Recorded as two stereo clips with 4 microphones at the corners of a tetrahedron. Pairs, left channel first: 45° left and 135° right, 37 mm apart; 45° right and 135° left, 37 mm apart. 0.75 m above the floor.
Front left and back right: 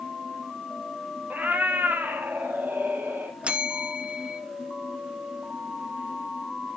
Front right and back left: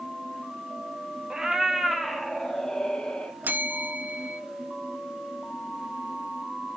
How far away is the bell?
About 0.9 m.